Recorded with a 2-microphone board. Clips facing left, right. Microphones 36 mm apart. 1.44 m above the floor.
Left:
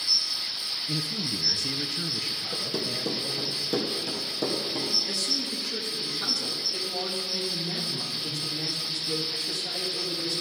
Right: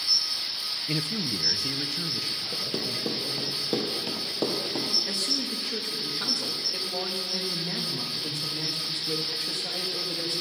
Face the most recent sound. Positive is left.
turn(degrees=-35)  # may be behind; listen again after turning